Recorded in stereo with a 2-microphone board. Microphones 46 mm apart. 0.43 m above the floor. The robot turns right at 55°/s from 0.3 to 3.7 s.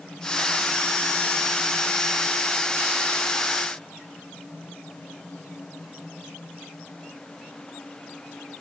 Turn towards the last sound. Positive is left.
No sound to turn to.